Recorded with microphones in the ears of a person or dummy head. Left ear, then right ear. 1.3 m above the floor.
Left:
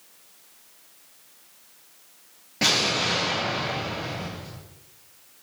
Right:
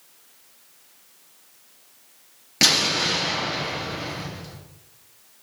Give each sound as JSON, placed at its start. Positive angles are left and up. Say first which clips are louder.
{"t": 2.6, "sound": "an explosion", "louder": "right 3 dB", "side_deg": -75, "distance_m": 2.0}